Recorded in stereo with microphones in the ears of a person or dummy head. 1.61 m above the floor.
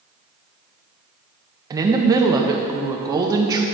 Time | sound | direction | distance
1.7 | a woman speaking | 25° right (ahead or behind) | 0.7 m